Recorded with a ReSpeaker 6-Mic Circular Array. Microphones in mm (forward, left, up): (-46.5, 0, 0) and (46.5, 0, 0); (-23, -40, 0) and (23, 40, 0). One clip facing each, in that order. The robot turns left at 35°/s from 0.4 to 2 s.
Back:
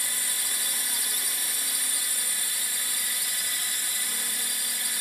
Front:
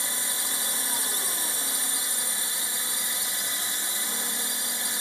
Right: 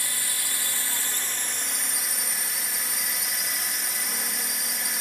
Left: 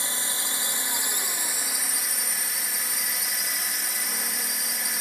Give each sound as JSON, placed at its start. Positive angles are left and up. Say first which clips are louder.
{"t": 0.0, "sound": "a drone", "louder": "front 3 dB, left 2 dB", "azimuth_deg": 30}